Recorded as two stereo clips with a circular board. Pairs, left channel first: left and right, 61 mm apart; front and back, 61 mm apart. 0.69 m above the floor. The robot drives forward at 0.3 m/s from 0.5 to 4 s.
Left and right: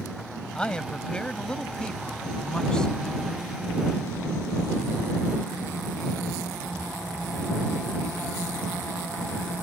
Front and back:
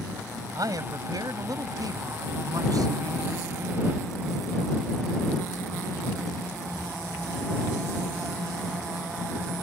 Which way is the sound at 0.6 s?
165° left.